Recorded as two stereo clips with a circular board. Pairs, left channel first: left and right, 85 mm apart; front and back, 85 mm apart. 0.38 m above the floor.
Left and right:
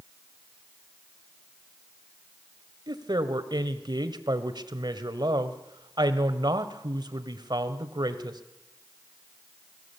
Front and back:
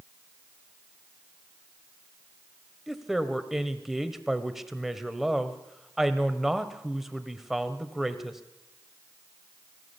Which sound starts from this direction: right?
A woman speaking, at 2.9 s.